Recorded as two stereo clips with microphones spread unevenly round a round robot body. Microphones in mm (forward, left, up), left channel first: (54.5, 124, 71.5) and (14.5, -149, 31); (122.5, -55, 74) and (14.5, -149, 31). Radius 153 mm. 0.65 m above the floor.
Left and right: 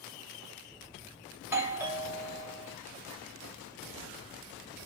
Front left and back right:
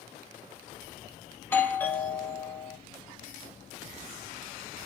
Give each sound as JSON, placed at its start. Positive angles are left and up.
{"t": 1.4, "sound": "a doorbell", "azimuth_deg": -60, "distance_m": 1.3}